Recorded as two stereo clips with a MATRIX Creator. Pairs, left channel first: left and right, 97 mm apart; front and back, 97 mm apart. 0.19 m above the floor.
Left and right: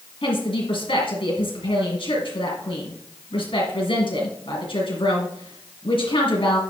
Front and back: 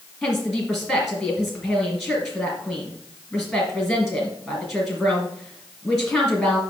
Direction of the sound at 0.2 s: 85° left.